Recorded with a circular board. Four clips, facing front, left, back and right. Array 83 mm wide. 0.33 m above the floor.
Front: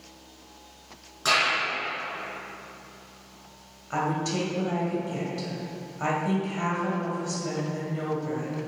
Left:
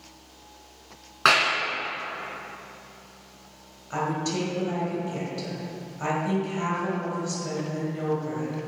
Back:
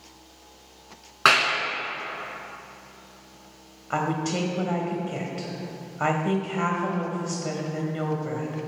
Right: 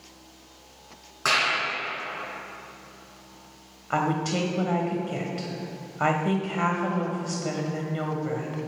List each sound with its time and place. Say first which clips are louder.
1.2 s a clap: left 4 dB, back 4 dB; 150° left, 3 m
3.9 s a woman speaking: right 2 dB, back 1 dB; 125° right, 1.9 m